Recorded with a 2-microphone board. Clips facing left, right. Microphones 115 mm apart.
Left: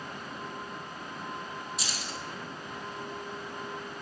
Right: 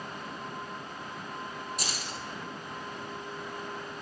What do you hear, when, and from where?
1.8 s keys jangling: 45° right (ahead or behind), 1.8 m